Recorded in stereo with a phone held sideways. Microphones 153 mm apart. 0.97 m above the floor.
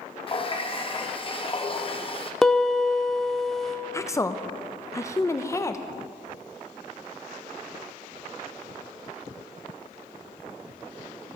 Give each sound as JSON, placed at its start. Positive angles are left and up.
{"t": 0.3, "sound": "a running tap", "side_deg": 35, "distance_m": 0.7}
{"t": 2.4, "sound": "a piano", "side_deg": 0, "distance_m": 0.7}
{"t": 3.9, "sound": "a woman speaking", "side_deg": 20, "distance_m": 0.5}